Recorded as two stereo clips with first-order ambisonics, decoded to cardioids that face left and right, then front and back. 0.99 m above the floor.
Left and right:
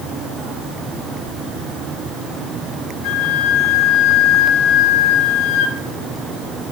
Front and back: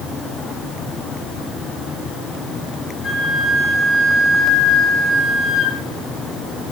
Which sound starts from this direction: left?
A flute, at 3.0 s.